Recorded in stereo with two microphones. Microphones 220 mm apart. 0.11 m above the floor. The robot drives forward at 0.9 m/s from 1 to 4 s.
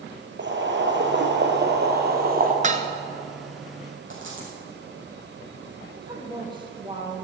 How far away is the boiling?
About 1.8 m.